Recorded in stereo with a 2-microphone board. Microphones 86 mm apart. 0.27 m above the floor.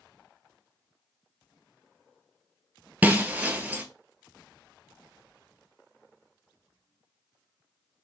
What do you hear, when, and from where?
3.0 s breaking glass: 20° right (ahead or behind), 0.7 m